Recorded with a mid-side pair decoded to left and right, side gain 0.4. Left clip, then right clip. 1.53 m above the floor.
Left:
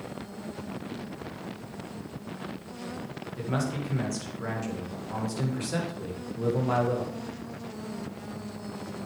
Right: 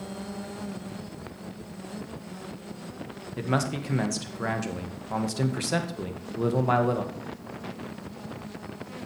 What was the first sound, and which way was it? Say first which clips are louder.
A man speaking: right 4 dB; 55° right.